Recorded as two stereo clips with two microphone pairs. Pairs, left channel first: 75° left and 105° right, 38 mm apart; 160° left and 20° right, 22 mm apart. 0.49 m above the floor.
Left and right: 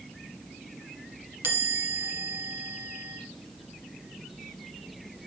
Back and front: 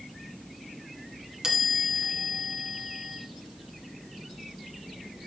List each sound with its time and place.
1.4 s a chime: 75° right, 3 m